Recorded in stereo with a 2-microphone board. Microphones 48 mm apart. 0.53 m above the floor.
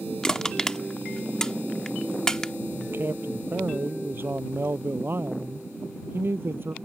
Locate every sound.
0.2 s crushing: 10° left (ahead or behind)
2.8 s a man speaking: 50° right (ahead or behind)